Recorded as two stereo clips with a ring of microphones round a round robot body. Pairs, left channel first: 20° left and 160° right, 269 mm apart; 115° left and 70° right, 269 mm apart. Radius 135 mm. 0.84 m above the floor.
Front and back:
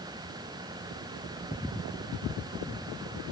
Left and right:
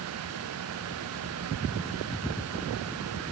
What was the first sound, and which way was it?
Only background noise.